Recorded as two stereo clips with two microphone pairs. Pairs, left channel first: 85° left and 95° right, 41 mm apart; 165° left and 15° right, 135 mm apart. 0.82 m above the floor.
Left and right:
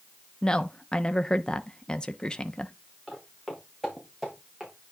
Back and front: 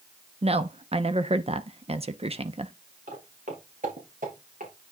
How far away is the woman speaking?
About 0.7 m.